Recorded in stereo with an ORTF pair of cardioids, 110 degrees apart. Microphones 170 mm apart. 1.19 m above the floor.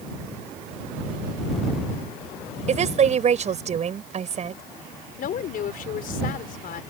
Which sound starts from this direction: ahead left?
A woman speaking, at 5.2 s.